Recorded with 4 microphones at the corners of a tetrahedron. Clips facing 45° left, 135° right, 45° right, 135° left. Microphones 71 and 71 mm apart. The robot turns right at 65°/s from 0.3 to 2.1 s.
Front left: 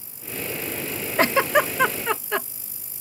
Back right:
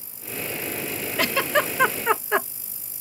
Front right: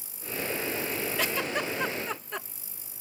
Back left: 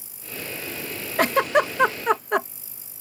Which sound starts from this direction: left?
A giggle, at 1.2 s.